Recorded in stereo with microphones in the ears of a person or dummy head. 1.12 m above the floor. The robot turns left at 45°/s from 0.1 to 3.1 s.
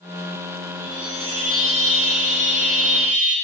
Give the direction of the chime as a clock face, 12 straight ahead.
1 o'clock.